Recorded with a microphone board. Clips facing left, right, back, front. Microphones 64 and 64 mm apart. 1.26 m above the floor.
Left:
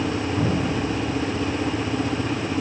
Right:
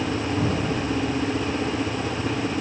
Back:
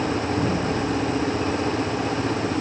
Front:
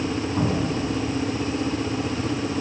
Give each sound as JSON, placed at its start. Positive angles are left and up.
{"t": 0.4, "sound": "an explosion", "azimuth_deg": -15, "distance_m": 8.0}